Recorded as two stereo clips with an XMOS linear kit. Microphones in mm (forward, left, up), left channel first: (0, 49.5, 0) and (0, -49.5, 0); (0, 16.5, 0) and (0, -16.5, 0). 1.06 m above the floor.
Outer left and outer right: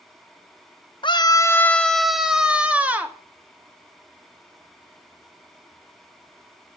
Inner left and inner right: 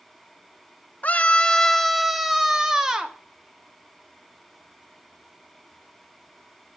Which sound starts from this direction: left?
A scream, at 1.0 s.